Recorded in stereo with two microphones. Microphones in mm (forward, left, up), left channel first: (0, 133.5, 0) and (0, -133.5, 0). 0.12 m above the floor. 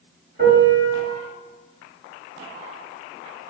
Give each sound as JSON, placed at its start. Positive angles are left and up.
{"t": 0.4, "sound": "a piano", "side_deg": -35, "distance_m": 1.8}